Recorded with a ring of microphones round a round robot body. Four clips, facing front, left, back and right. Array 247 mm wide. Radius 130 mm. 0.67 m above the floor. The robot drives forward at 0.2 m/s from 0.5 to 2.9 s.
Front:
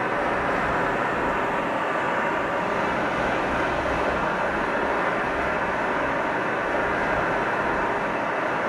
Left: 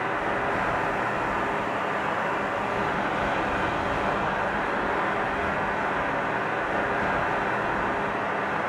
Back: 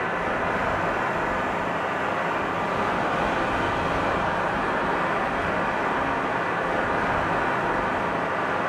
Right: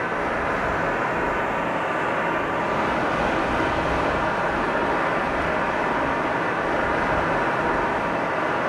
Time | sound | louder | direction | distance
0.0 | running water | right 2 dB, front 2 dB | 45° right | 0.8 m